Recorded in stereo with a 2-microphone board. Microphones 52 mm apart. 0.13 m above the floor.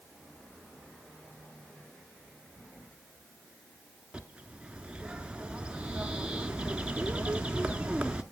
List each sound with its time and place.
4.1 s a bird: 20° right (ahead or behind), 0.9 m